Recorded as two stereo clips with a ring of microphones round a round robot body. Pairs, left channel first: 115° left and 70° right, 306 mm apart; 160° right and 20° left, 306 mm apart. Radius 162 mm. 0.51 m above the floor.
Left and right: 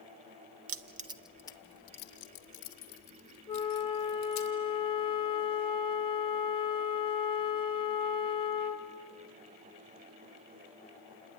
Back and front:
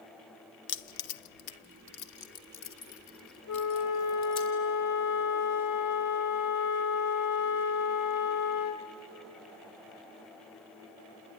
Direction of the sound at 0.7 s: 105° right.